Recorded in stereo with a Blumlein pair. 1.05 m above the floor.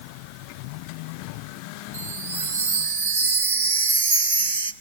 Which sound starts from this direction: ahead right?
A chime, at 1.9 s.